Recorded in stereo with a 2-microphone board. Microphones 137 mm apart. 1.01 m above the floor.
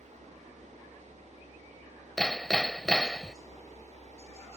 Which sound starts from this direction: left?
A helicopter, at 0.0 s.